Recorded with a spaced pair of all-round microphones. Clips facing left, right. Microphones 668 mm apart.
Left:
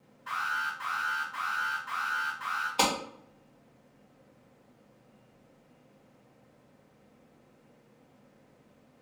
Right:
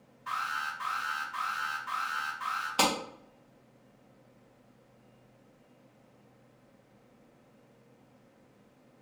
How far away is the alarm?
About 1.8 m.